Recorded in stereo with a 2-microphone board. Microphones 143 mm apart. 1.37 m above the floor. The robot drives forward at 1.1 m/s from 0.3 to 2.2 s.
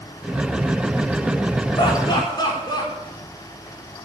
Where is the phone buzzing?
I don't hear a phone buzzing.